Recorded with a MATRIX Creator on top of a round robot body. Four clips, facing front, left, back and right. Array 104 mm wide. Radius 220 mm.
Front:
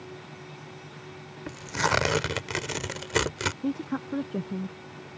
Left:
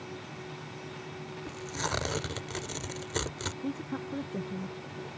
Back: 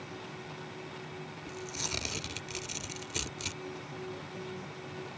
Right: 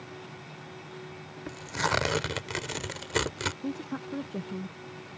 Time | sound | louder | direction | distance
1.5 | tearing paper | right 6 dB, front 16 dB | 20° right | ?
3.6 | a woman speaking | right 1 dB, front 12 dB | 10° right | ?